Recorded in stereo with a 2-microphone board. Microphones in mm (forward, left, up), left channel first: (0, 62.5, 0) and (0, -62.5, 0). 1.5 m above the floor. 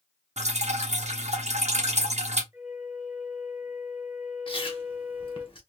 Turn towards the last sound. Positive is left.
turn(degrees=45)  # may be behind; listen again after turning